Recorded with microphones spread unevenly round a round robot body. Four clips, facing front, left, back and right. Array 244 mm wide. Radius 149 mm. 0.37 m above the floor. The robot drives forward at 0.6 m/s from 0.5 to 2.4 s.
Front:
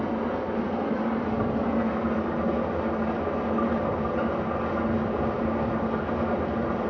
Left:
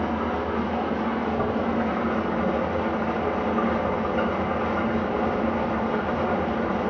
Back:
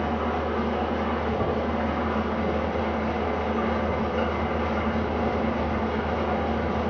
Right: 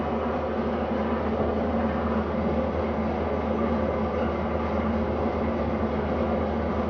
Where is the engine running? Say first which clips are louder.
Left 1 dB, back 1 dB; 45° left, 2.0 m; by 6.9 s 85° left, 1.5 m.